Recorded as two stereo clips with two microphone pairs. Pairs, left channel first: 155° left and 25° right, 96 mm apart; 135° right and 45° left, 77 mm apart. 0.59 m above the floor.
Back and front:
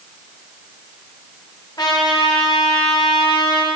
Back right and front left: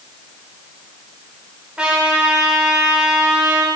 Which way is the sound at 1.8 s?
120° left.